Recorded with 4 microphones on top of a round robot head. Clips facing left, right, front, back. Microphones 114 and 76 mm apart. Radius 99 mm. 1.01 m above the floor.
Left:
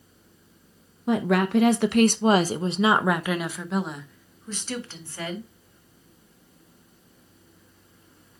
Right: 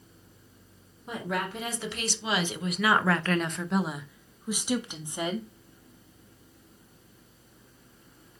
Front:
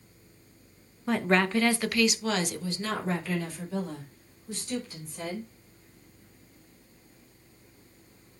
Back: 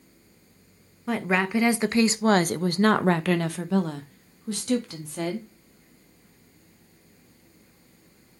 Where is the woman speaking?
90° left, 1.1 m; by 5.5 s 160° right, 2 m.